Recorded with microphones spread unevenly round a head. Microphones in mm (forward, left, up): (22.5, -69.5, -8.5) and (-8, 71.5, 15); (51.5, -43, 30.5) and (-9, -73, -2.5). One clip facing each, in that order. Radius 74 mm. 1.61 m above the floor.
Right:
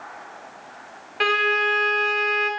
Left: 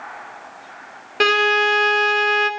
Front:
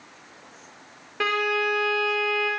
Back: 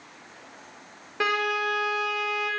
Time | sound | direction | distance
1.2 | a violin | 105° left | 0.7 m